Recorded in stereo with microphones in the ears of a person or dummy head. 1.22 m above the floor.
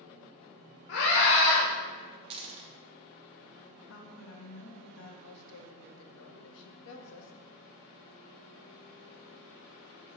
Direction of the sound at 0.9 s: 60° left (ahead or behind).